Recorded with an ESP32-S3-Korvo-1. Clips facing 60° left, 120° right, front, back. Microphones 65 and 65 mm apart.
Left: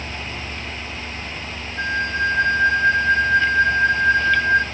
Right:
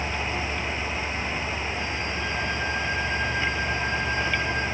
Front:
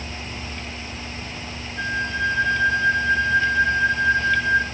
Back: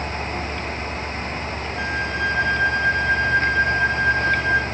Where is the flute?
90° left, 1.5 m.